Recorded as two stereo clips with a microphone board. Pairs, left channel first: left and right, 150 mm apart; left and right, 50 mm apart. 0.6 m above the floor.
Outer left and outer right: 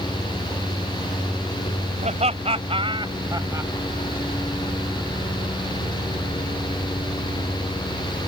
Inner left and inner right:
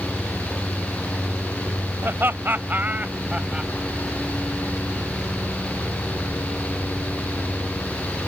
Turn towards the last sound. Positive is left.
turn(degrees=-20)  # may be behind; listen again after turning